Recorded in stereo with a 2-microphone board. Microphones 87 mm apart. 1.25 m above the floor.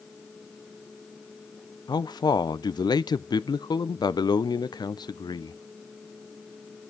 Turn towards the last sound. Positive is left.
turn(degrees=55)  # may be behind; listen again after turning